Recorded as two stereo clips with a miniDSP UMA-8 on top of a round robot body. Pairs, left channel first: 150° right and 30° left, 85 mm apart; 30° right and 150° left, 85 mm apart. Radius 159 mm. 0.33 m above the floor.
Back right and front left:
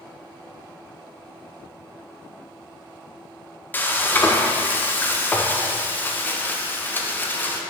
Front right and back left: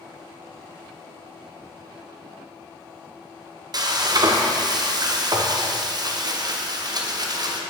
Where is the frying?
150° left, 0.9 m.